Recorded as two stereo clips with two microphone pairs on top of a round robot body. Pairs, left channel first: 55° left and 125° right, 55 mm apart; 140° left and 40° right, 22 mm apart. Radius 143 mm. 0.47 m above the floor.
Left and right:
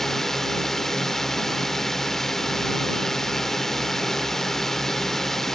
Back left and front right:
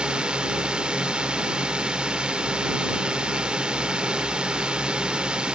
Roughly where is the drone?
Ahead right.